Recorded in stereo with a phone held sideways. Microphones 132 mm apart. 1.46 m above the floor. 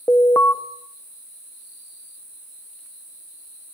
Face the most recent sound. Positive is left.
turn(degrees=20)  # may be behind; listen again after turning